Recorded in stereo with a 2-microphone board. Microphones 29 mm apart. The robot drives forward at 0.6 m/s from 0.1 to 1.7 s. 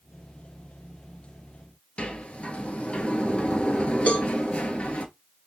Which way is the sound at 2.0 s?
40° left (ahead or behind).